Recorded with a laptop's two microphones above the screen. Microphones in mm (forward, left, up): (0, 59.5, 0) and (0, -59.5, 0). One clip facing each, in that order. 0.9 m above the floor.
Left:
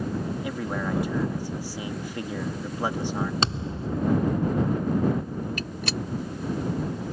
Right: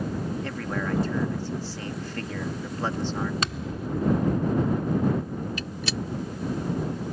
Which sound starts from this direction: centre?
A man speaking, at 0.4 s.